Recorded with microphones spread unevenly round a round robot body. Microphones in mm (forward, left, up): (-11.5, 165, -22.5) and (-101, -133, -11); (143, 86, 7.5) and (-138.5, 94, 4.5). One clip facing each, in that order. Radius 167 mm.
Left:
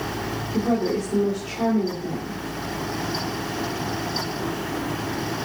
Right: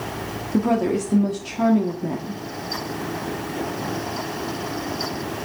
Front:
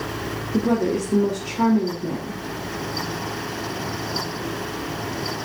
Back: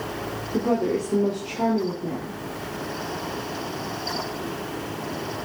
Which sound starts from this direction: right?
A woman speaking, at 0.5 s.